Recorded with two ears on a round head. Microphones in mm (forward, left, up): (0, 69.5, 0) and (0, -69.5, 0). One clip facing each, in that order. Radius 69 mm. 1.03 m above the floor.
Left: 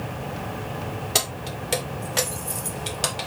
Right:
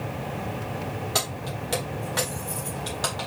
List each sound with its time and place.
1.1 s keys jangling: 25° left (ahead or behind), 2.0 m